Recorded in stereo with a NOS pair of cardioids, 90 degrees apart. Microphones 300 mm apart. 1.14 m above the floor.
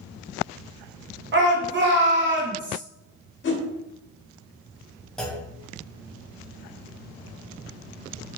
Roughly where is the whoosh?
Ahead left.